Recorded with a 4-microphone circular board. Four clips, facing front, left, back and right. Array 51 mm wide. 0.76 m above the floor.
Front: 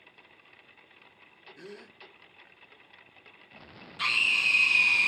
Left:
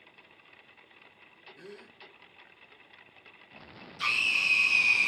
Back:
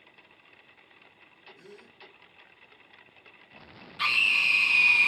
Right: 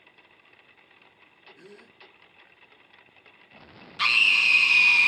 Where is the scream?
105° right, 1.7 m.